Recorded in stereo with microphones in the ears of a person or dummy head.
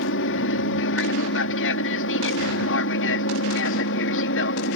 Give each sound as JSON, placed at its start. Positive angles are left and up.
{"t": 0.0, "sound": "an aircraft", "side_deg": 60}